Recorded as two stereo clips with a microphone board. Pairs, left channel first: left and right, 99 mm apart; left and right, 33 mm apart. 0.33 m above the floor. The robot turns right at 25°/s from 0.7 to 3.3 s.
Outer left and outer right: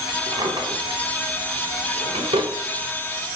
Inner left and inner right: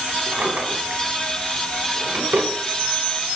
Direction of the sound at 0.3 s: 60° right (ahead or behind).